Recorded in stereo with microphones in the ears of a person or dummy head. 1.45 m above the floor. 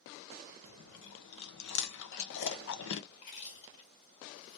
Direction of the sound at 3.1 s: 55° left (ahead or behind).